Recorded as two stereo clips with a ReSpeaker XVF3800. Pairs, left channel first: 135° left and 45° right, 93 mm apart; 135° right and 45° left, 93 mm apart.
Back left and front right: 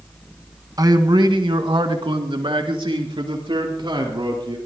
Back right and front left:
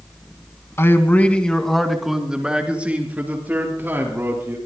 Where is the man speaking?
80° right, 1.6 m; by 4.6 s 20° right, 4.5 m.